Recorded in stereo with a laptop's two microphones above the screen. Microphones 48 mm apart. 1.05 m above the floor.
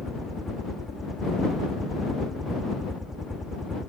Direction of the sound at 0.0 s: Centre (ahead or behind).